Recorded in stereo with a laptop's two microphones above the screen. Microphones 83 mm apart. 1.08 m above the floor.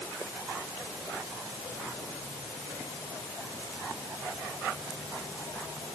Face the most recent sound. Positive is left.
No sound to turn to.